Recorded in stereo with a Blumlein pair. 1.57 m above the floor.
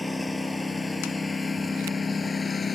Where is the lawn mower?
5° left; by 2.8 s 15° left.